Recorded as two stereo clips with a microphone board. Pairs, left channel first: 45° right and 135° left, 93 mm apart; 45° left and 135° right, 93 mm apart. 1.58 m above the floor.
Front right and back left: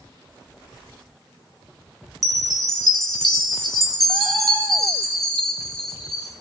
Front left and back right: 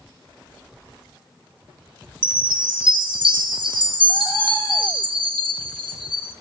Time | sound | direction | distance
2.2 | a chime | 130° right | 1.6 m